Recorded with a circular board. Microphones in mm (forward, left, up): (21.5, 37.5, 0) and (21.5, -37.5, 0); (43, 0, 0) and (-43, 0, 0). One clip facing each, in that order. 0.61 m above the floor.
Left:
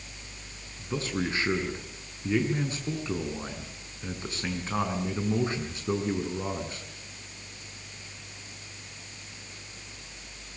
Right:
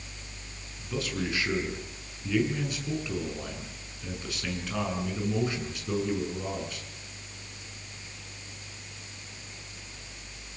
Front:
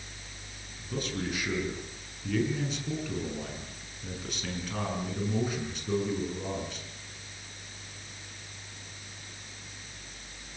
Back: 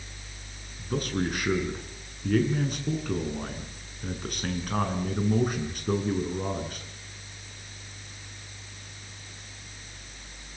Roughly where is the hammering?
No hammering in this recording.